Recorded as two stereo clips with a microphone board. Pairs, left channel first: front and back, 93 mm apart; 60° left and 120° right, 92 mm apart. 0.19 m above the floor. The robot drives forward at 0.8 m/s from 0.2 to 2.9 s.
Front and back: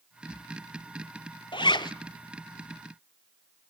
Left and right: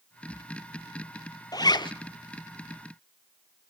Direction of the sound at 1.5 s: 20° left.